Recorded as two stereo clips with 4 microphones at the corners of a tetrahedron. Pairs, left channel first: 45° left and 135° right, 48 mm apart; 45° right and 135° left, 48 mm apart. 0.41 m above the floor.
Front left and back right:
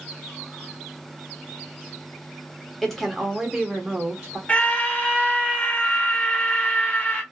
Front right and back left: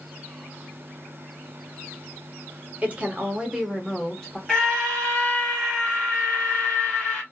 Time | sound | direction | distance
2.8 | a woman speaking | 120° left | 1.2 m
4.5 | a scream | 15° left | 1.4 m